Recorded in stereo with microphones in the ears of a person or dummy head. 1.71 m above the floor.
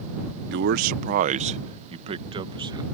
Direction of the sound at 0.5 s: 55° right (ahead or behind).